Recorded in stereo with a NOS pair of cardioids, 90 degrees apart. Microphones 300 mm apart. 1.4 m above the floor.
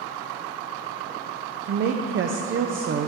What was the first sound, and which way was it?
A woman speaking, 45° right.